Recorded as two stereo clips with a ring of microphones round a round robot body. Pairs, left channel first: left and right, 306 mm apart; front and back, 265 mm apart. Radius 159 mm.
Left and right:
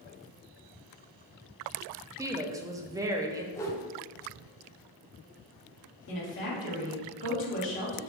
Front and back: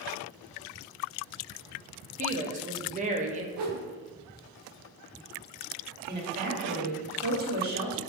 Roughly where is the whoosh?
Behind.